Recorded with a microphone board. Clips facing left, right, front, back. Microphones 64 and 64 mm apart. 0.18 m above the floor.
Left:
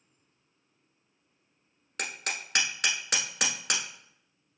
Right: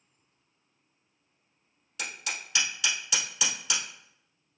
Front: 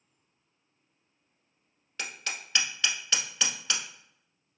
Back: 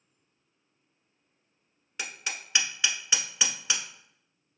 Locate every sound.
2.0 s hammering: 110° left, 1.1 m